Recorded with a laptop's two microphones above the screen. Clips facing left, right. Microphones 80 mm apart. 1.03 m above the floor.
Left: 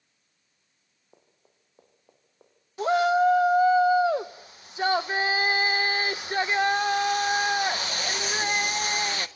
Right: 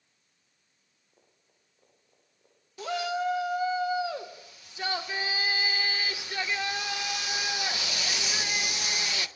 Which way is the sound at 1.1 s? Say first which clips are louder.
Left 6 dB; 80° left.